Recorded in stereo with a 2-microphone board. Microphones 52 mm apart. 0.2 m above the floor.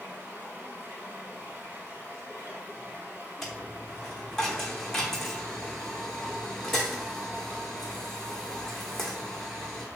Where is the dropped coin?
10° left (ahead or behind), 0.7 m.